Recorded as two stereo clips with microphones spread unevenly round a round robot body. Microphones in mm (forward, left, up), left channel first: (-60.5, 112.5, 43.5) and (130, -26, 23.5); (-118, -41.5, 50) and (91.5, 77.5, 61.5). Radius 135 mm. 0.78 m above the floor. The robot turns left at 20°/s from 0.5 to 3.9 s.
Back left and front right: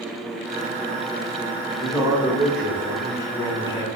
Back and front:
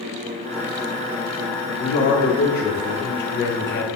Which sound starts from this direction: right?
A man speaking, at 1.8 s.